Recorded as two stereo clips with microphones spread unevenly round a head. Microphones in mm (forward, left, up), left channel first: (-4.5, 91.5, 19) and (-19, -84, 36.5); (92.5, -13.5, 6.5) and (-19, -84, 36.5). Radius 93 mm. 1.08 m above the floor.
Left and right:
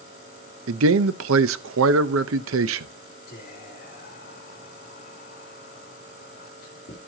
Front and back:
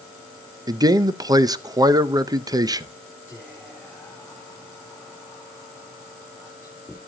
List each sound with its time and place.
0.7 s a man speaking: 85° right, 0.7 m
3.3 s whispering: 120° left, 3 m